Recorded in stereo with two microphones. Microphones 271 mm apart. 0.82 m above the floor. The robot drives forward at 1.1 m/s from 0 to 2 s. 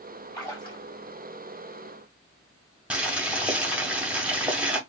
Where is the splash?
15° left (ahead or behind), 2.5 m.